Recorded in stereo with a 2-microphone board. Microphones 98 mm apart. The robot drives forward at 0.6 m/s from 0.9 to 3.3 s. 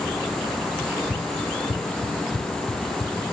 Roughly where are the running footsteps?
Left.